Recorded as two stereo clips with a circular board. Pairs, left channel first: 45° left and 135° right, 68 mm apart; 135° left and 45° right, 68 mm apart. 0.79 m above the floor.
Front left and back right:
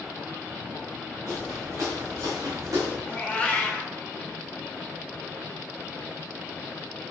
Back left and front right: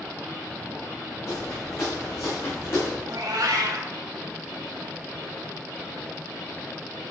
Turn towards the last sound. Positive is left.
turn(degrees=-30)